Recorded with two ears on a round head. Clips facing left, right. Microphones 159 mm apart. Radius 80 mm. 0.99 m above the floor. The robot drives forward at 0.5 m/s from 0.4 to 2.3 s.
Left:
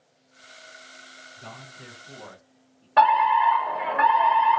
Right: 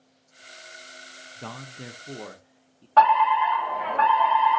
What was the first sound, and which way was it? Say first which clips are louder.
A man speaking: right 5 dB; 60° right (ahead or behind).